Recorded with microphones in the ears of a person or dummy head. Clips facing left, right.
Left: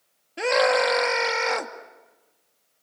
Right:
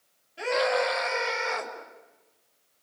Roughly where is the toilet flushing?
No toilet flushing in this recording.